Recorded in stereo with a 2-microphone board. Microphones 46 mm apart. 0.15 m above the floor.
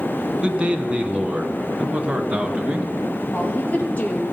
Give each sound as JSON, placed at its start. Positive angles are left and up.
{"t": 0.4, "sound": "a man speaking", "side_deg": -20, "distance_m": 1.1}
{"t": 3.3, "sound": "a woman speaking", "side_deg": 30, "distance_m": 4.0}